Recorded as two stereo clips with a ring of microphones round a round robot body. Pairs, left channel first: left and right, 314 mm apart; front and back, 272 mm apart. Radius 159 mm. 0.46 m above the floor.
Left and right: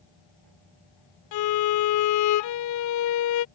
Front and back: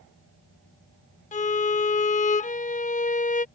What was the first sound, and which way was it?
A violin, 65° left.